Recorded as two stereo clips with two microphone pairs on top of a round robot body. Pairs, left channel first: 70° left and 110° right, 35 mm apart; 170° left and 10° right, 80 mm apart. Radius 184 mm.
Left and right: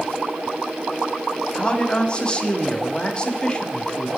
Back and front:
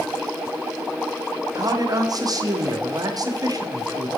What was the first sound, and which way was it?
A man speaking, 10° left.